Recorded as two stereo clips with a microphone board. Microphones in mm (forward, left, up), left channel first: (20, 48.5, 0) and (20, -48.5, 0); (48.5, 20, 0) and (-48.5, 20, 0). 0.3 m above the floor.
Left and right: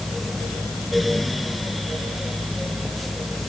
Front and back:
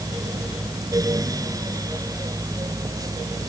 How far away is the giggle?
I don't hear a giggle.